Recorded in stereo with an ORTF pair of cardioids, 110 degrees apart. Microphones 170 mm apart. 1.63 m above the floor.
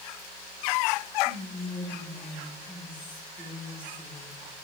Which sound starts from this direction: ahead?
Whispering, at 1.2 s.